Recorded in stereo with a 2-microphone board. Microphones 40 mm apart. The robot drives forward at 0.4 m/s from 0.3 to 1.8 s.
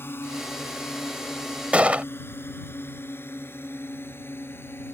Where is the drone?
75° left (ahead or behind).